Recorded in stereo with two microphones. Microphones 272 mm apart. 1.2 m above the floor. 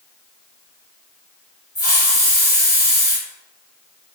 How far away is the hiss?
About 1.5 m.